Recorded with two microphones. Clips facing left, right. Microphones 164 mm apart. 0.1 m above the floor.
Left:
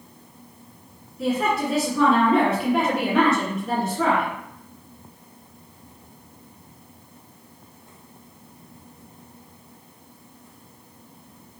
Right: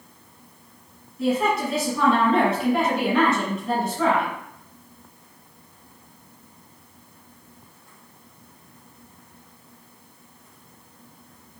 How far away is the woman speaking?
About 1.2 m.